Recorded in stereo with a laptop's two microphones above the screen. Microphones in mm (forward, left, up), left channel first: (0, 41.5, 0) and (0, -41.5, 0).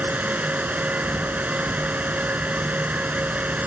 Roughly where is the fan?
Centre.